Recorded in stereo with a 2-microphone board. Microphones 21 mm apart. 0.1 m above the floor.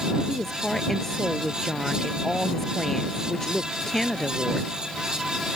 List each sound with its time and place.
0.3 s a woman speaking: 15° left (ahead or behind)